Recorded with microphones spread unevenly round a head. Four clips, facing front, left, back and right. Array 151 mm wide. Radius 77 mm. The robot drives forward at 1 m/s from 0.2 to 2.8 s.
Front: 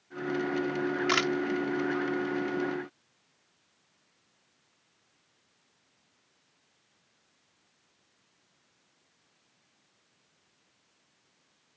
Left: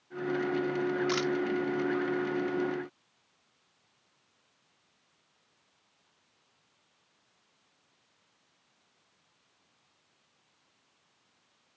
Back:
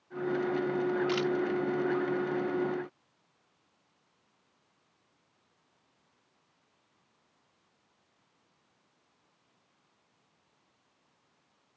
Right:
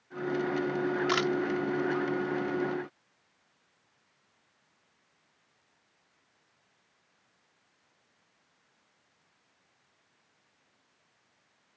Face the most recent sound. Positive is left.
turn(degrees=-35)